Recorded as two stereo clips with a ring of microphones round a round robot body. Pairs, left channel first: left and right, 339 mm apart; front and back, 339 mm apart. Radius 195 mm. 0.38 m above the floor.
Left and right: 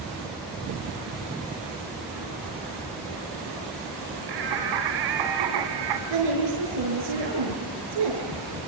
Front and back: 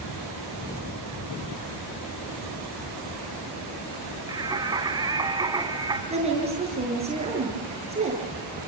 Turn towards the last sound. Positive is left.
turn(degrees=-110)